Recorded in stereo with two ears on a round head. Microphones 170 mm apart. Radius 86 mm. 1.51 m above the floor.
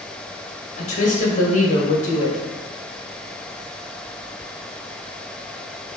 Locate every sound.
0.8 s a woman speaking: 40° left (ahead or behind), 1.3 m